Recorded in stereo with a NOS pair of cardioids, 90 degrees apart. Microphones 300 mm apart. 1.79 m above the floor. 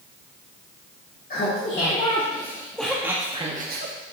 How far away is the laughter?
About 1.8 m.